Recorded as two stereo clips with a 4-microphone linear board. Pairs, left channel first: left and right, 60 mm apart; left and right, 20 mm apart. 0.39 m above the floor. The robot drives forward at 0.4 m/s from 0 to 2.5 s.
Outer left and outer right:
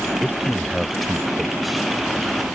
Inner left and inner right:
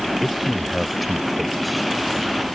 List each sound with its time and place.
0.2 s a man speaking: centre (ahead or behind)